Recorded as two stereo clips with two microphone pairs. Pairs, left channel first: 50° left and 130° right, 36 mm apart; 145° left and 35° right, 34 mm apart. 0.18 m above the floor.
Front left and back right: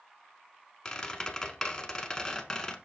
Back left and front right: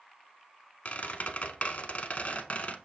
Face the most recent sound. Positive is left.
turn(degrees=115)